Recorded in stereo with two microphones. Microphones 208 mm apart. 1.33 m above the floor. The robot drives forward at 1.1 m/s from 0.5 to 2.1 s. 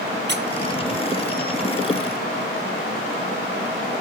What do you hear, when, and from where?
0.3 s a squeak: 55° right (ahead or behind), 0.7 m